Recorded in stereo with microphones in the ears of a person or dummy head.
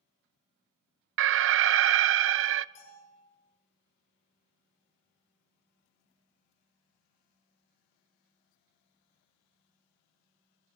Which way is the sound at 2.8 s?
35° left (ahead or behind).